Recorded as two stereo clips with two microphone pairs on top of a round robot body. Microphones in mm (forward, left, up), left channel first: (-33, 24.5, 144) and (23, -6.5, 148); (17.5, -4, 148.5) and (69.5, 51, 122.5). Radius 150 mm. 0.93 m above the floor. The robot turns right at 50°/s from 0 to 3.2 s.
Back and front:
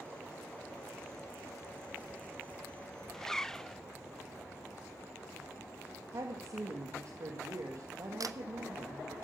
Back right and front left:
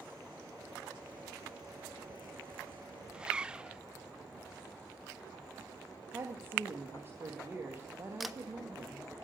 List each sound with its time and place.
3.1 s a zipper: 75° left, 0.6 m; by 3.8 s 80° left, 0.6 m
6.1 s a woman speaking: straight ahead, 1.8 m
8.2 s a camera shutter: 30° right, 0.8 m